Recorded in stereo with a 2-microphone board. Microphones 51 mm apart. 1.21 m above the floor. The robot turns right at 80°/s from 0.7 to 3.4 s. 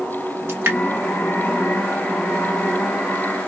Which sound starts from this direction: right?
Dripping, at 0.5 s.